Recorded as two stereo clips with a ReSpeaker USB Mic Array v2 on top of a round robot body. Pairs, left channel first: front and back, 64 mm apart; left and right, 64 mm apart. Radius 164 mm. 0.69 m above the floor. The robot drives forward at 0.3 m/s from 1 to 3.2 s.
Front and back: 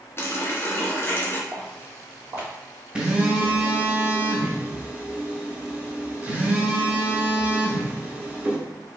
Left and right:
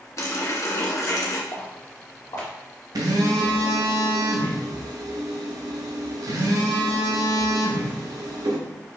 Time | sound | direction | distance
0.2 | a running tap | 50° left | 1.0 m
1.5 | footsteps | 105° left | 2 m
3.0 | a phone buzzing | 105° right | 0.7 m